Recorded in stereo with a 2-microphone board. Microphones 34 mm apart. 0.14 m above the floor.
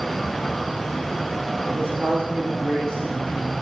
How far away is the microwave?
No microwave in this recording.